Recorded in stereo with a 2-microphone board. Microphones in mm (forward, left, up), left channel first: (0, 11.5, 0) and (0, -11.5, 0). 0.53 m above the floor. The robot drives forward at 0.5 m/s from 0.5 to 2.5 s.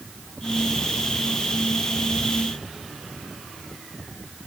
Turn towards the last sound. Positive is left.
No sound to turn to.